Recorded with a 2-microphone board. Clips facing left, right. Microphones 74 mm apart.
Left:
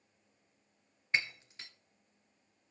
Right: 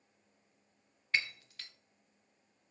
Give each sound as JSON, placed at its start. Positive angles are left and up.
{"t": 1.1, "sound": "breaking glass", "side_deg": 20, "distance_m": 1.0}